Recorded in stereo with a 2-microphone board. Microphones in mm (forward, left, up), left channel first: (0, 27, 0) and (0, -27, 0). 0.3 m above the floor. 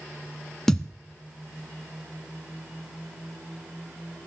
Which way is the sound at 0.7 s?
10° left (ahead or behind).